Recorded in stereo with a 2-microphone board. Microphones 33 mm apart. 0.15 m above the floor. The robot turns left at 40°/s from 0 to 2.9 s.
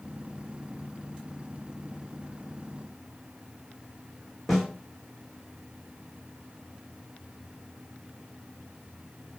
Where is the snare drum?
Centre (ahead or behind), 1.8 m.